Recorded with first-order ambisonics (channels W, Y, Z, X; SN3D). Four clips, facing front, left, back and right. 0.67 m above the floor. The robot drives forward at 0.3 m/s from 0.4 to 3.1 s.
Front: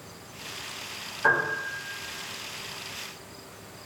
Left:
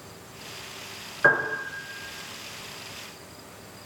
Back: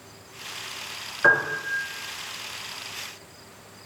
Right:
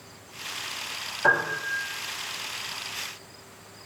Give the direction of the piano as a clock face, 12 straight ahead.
8 o'clock.